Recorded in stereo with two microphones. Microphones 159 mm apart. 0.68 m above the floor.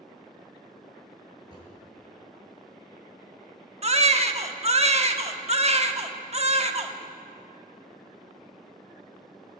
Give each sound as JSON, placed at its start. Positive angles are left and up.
{"t": 1.4, "sound": "a drawer", "side_deg": -35, "distance_m": 7.0}
{"t": 3.8, "sound": "a baby crying", "side_deg": -40, "distance_m": 0.8}